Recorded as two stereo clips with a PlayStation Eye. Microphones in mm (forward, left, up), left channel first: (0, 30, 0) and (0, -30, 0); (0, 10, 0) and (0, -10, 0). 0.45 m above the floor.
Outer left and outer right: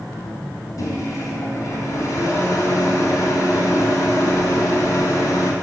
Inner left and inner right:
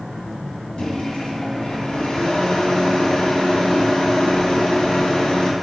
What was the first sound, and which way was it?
A microwave, 65° left (ahead or behind).